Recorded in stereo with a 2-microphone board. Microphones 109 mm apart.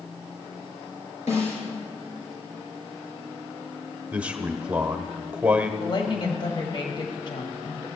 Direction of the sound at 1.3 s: 80° left.